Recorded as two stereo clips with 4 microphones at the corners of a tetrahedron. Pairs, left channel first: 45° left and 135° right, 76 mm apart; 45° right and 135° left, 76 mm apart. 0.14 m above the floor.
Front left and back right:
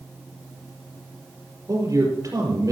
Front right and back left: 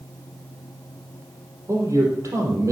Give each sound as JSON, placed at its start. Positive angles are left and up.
{"t": 1.7, "sound": "a man speaking", "azimuth_deg": -175, "distance_m": 4.5}